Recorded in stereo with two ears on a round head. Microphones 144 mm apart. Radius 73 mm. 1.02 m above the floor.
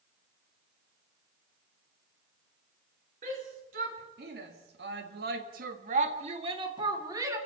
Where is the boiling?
No boiling in this recording.